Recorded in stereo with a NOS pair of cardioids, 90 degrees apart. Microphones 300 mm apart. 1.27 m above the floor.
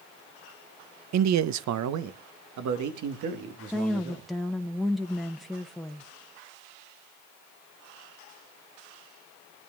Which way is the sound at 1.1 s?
60° right.